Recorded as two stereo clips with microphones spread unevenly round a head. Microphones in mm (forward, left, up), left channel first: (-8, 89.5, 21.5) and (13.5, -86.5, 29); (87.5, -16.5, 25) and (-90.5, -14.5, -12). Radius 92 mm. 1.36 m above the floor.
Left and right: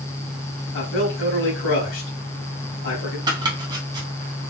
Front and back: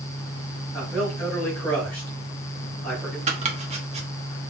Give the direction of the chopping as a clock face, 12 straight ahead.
4 o'clock.